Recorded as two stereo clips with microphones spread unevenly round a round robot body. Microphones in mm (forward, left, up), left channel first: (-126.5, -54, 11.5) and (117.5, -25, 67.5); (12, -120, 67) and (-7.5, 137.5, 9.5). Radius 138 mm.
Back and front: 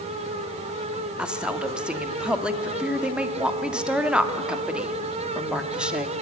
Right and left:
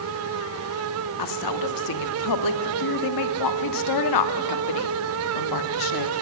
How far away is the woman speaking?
About 1.5 m.